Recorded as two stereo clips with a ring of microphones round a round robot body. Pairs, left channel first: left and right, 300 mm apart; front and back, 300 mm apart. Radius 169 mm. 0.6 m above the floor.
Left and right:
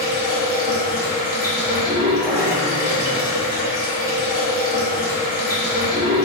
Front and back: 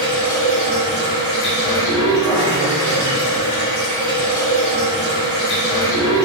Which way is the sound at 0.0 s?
30° left.